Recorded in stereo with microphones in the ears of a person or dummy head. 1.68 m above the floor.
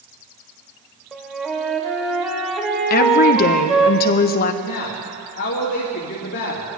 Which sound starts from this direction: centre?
A flute, at 1.1 s.